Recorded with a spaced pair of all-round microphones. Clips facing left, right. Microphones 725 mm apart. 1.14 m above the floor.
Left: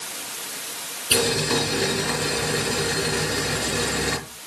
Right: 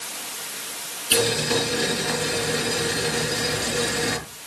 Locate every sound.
1.1 s boiling: 70° left (ahead or behind), 4.5 m